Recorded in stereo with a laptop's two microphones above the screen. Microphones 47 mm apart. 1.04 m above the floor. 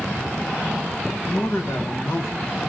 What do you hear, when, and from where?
1.2 s a man speaking: 60° left (ahead or behind), 1.2 m